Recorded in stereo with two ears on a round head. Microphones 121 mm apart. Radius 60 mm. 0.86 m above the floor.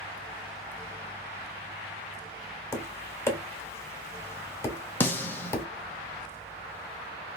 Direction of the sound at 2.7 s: 20° left (ahead or behind).